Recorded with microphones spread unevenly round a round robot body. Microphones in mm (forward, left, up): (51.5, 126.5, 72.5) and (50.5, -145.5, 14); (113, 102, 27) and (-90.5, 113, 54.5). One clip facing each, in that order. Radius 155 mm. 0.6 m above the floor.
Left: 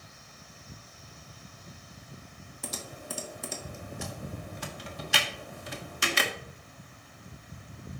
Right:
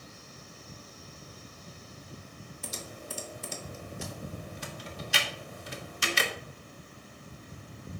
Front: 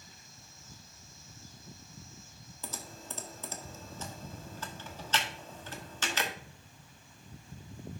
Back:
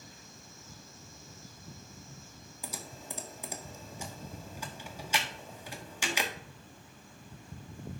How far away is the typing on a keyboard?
About 1.4 m.